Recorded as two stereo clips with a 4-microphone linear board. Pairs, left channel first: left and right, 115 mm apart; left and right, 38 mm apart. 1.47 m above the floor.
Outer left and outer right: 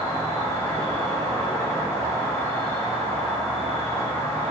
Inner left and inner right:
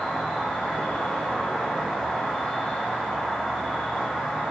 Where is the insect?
20° left (ahead or behind), 0.9 m.